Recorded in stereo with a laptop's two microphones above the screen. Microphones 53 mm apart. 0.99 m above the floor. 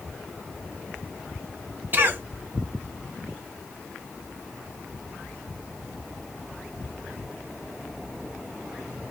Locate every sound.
1.9 s a cough: 40° right (ahead or behind), 1.1 m